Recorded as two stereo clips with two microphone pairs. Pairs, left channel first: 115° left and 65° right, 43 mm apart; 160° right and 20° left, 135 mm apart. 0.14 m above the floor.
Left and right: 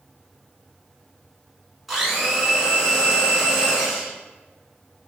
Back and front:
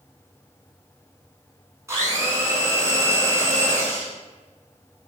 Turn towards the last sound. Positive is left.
turn(degrees=10)